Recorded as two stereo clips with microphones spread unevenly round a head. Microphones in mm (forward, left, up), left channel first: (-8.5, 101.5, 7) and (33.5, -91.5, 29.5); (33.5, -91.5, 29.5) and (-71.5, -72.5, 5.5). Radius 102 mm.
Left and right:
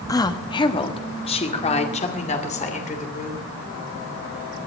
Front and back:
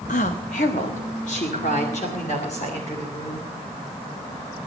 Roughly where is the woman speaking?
Ahead left.